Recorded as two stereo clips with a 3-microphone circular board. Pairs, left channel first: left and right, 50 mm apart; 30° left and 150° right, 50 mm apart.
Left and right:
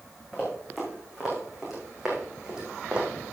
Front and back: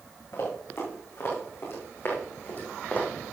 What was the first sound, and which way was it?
Running footsteps, straight ahead.